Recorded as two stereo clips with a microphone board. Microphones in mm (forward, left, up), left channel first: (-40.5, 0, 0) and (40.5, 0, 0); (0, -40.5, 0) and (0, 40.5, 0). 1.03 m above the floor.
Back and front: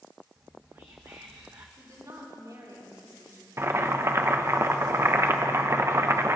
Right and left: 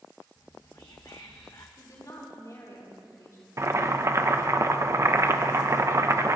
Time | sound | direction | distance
0.4 | whispering | 50° right | 0.8 m
1.8 | a woman speaking | 45° right | 6.5 m
3.6 | boiling | 45° left | 0.7 m